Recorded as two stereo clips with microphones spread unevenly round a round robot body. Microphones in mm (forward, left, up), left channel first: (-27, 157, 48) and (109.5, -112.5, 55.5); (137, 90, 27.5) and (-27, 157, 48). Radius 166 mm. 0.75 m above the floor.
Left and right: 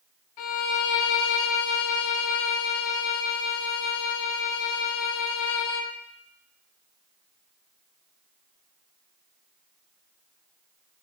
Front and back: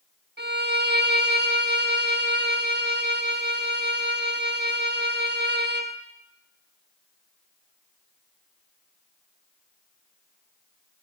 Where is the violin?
130° left, 1.1 m.